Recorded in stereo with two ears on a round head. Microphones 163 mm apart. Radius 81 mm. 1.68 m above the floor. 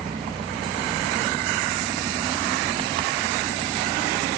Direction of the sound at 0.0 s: 30° right (ahead or behind).